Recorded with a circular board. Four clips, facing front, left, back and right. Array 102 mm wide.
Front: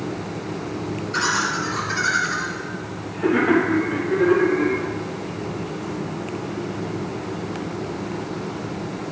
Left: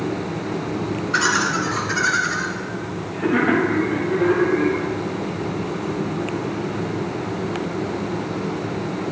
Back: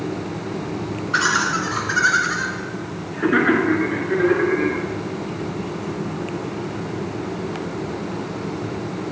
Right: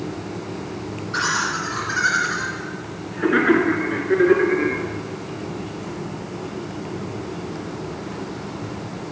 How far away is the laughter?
About 1.8 m.